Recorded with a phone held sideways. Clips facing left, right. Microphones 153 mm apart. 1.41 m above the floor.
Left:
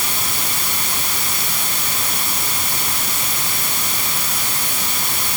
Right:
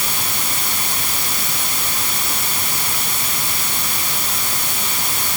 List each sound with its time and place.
Only background noise.